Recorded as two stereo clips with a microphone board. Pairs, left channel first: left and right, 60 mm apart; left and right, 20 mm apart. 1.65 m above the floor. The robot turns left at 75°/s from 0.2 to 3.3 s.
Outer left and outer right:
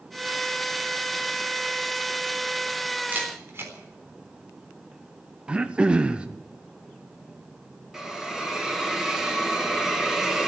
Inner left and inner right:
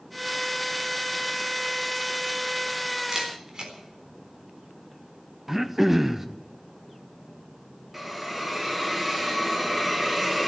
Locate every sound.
3.1 s a camera shutter: 25° right (ahead or behind), 3.5 m; by 3.7 s 40° right (ahead or behind), 3.5 m
5.5 s throat clearing: 15° right (ahead or behind), 0.8 m
7.9 s a hiss: 10° right (ahead or behind), 2 m